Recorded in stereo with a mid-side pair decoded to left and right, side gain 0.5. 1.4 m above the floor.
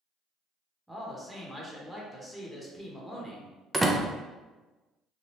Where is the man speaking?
5° right, 1.1 m.